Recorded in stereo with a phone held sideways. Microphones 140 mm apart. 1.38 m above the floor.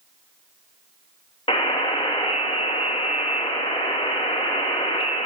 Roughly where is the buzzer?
Left.